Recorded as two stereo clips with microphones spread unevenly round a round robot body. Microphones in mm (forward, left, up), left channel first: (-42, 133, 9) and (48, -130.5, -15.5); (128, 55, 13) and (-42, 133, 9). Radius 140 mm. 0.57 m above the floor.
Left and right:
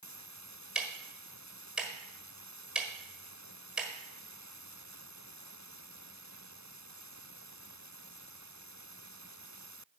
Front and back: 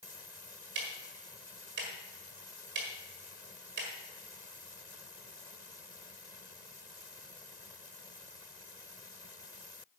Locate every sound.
0.8 s ticking: 160° right, 1.5 m